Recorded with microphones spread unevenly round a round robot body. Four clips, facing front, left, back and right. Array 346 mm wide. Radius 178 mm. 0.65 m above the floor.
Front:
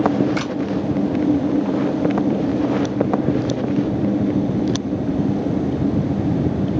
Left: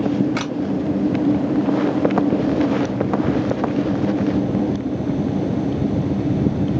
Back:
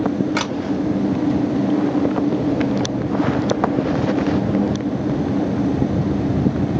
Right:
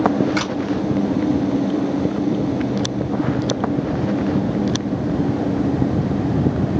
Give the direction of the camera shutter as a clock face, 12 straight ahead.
7 o'clock.